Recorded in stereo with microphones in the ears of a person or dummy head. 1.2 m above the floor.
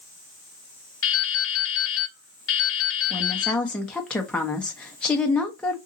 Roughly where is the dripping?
Left.